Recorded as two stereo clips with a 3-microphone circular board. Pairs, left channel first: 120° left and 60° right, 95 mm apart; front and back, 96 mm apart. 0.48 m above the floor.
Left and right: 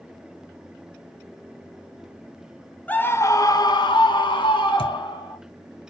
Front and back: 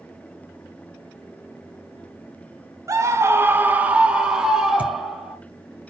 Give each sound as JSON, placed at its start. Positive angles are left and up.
{"t": 2.9, "sound": "a scream", "azimuth_deg": 180, "distance_m": 0.8}
{"t": 4.8, "sound": "a thud", "azimuth_deg": 110, "distance_m": 1.2}